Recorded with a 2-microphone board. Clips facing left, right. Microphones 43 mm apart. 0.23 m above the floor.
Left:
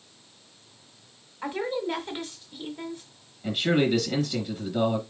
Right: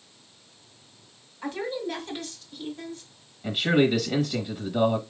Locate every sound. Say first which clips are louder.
1.4 s a woman speaking: left 2 dB; 25° left (ahead or behind), 1.5 m
3.4 s a man speaking: right 2 dB; 10° right (ahead or behind), 1.2 m